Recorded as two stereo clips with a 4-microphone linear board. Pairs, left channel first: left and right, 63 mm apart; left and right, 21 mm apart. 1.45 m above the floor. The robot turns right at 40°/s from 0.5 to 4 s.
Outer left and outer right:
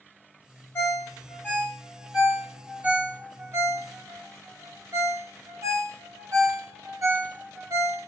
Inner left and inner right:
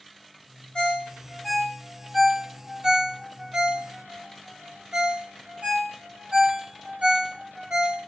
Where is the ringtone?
35° left (ahead or behind), 0.8 m; by 8.0 s 55° right (ahead or behind), 0.8 m.